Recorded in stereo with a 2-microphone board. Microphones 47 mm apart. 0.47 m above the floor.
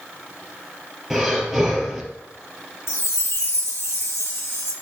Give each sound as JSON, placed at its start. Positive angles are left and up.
{"t": 1.1, "sound": "breathing", "side_deg": -5, "distance_m": 3.5}
{"t": 2.9, "sound": "a chime", "side_deg": 60, "distance_m": 4.0}